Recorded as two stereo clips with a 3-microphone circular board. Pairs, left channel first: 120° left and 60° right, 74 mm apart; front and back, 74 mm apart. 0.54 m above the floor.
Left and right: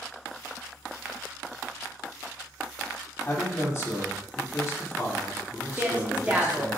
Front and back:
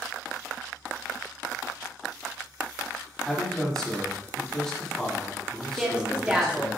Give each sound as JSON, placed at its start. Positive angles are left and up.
{"t": 3.2, "sound": "a man speaking", "azimuth_deg": 80, "distance_m": 1.0}
{"t": 5.8, "sound": "a woman speaking", "azimuth_deg": -115, "distance_m": 0.7}